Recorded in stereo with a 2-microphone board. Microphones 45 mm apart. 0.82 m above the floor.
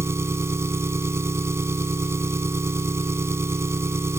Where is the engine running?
85° right.